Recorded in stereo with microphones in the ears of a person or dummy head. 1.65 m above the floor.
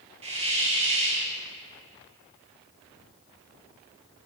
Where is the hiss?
30° right (ahead or behind), 1.0 m.